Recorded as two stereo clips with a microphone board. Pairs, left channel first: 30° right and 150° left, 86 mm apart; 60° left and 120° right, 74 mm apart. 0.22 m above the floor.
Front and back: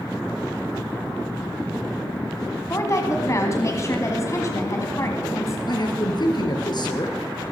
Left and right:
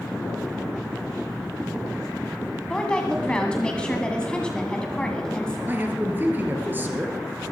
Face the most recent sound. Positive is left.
turn(degrees=-60)